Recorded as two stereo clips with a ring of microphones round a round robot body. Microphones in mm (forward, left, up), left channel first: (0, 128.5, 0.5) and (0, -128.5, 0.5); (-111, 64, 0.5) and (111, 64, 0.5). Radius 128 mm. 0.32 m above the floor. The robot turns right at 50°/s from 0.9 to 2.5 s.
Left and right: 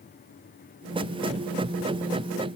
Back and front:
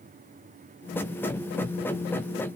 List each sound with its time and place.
Only background noise.